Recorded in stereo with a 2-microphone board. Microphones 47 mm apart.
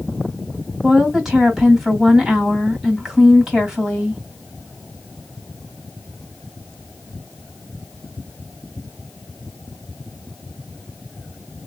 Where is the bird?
No bird in this recording.